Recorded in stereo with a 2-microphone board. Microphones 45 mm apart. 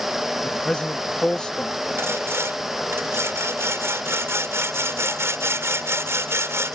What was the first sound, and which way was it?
A man speaking, 25° left (ahead or behind).